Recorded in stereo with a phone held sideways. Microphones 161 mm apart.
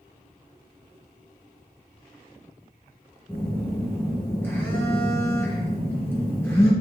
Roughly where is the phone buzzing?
Centre.